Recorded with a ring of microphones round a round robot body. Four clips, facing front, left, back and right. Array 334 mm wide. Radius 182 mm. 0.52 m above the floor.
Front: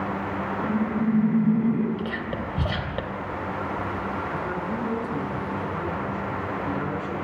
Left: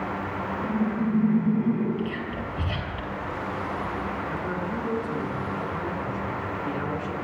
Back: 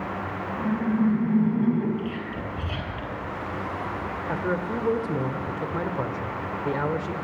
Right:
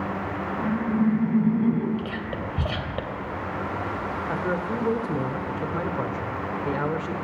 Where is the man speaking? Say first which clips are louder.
Right 3 dB, back 2 dB; 140° right, 1.7 m.